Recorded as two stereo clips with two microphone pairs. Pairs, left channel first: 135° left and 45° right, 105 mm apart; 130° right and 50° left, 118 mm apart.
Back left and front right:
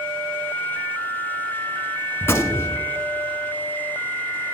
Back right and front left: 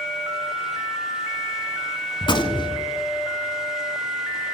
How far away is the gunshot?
About 0.8 m.